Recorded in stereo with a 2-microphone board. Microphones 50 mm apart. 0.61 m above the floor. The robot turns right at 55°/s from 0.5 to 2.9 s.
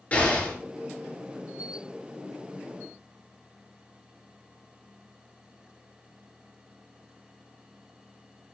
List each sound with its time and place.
0.1 s an explosion: 30° left (ahead or behind), 5 m; by 0.6 s 25° left (ahead or behind), 5 m